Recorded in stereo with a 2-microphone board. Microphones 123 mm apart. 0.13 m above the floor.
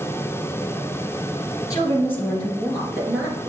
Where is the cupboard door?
I don't hear a cupboard door.